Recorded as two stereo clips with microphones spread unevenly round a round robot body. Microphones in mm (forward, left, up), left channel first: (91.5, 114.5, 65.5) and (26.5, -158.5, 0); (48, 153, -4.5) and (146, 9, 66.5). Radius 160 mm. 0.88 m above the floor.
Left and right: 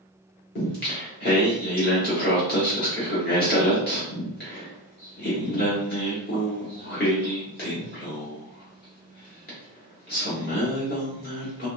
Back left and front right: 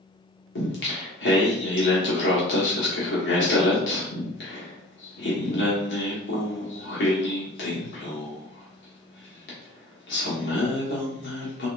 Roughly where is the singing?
Behind left.